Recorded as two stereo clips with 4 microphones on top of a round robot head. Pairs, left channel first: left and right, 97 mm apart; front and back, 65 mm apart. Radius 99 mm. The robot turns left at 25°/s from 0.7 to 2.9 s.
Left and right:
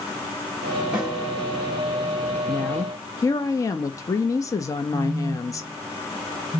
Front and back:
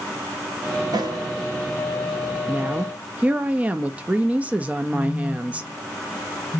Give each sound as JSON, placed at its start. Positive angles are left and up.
{"t": 0.9, "sound": "a snare drum", "azimuth_deg": -170, "distance_m": 1.1}
{"t": 2.5, "sound": "a woman speaking", "azimuth_deg": 135, "distance_m": 0.5}
{"t": 4.9, "sound": "a phone buzzing", "azimuth_deg": -10, "distance_m": 0.9}